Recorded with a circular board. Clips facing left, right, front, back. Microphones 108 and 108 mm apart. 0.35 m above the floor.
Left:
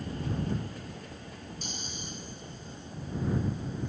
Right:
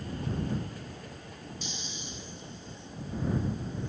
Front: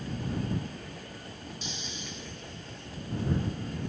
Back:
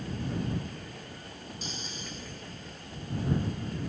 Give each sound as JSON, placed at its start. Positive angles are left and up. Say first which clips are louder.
{"t": 1.6, "sound": "snoring", "louder": "left 1 dB, back 1 dB", "azimuth_deg": 130}